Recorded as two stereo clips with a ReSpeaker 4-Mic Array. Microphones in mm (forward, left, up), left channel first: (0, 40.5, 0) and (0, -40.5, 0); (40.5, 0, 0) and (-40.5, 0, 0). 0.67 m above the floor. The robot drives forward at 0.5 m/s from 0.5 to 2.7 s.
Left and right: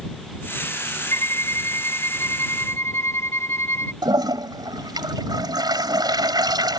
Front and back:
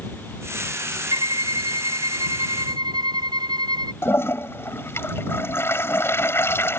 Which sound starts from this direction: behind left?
A violin, at 1.1 s.